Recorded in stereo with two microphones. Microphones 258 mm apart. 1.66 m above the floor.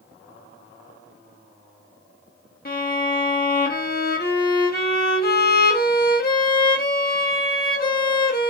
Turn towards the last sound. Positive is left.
turn(degrees=35)  # may be behind; listen again after turning